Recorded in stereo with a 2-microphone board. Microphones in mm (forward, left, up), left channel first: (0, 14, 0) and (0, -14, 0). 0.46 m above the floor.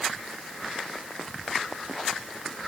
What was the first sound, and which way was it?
Only background noise.